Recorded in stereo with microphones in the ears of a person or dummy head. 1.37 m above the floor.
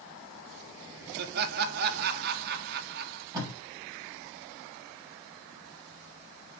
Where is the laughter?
55° right (ahead or behind), 1.1 m.